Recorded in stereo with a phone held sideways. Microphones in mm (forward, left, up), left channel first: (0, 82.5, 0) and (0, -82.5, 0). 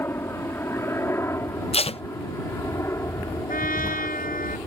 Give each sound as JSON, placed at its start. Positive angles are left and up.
{"t": 0.0, "sound": "a helicopter", "side_deg": 15}
{"t": 1.7, "sound": "tape being pulled", "side_deg": 35}
{"t": 3.5, "sound": "a trumpet", "side_deg": 55}